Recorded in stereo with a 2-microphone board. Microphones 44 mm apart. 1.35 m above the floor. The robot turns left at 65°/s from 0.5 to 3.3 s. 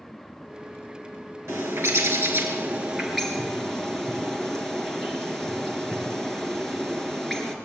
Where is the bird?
70° right, 4 m; by 7.5 s 170° left, 4 m.